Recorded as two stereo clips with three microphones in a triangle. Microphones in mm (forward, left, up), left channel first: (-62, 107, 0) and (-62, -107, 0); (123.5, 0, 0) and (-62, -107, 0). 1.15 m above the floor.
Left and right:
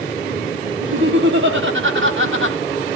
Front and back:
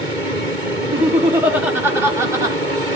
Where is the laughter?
65° right, 3 m; by 2.6 s 75° right, 2.5 m.